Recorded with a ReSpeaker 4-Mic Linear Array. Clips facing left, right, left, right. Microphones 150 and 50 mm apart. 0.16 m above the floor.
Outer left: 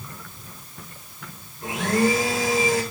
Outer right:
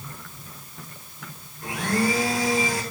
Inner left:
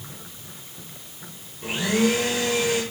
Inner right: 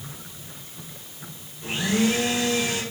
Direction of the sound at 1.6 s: 25° left (ahead or behind).